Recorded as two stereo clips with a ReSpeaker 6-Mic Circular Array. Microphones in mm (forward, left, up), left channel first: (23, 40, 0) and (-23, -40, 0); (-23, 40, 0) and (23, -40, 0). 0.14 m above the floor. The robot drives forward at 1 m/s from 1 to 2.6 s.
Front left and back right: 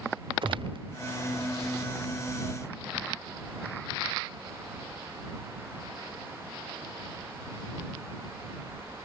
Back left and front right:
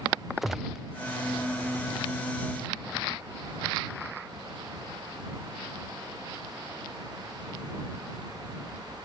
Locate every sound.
0.4 s a gunshot: 150° right